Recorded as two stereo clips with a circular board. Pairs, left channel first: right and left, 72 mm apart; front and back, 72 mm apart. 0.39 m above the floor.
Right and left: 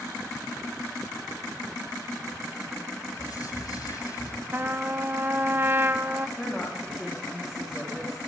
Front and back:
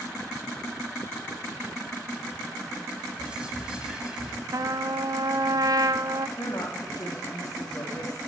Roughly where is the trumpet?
Behind left.